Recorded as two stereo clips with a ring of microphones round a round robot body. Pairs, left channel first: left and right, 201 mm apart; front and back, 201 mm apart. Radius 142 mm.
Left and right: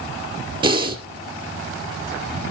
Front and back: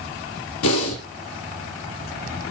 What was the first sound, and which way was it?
Breathing, 25° right.